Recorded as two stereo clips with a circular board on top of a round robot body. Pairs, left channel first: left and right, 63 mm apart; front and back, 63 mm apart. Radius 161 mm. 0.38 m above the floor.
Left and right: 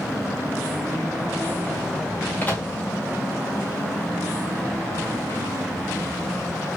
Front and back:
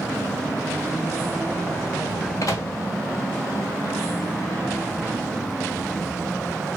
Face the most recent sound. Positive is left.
turn(degrees=25)